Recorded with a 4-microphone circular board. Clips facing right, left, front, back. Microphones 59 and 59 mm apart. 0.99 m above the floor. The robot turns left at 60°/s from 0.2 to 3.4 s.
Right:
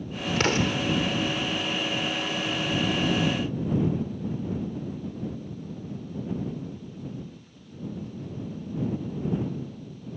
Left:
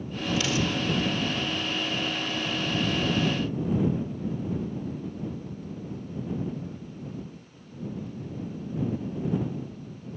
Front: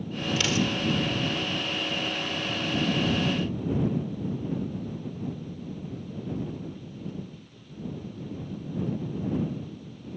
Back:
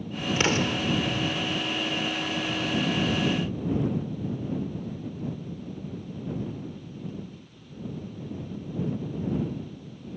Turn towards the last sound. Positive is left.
turn(degrees=55)